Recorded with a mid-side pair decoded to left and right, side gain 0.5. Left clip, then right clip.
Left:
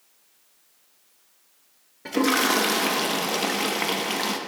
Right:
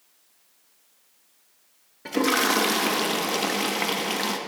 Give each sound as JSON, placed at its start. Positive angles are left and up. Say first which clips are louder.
{"t": 2.0, "sound": "a toilet flushing", "louder": "left 1 dB", "azimuth_deg": -5, "distance_m": 0.6}